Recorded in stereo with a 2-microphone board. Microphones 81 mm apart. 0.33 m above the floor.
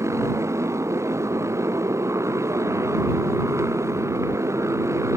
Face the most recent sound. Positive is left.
turn(degrees=-40)  # may be behind; listen again after turning